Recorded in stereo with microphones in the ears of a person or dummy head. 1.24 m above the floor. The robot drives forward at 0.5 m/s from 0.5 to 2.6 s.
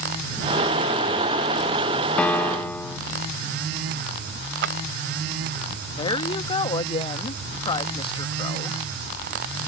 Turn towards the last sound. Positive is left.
turn(degrees=20)  # may be behind; listen again after turning